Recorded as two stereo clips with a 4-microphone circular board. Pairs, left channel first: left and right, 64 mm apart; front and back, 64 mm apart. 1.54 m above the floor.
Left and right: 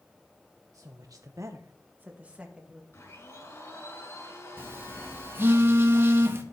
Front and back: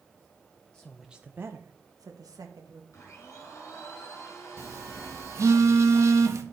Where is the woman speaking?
70° right, 0.9 m; by 2.8 s 170° right, 2 m.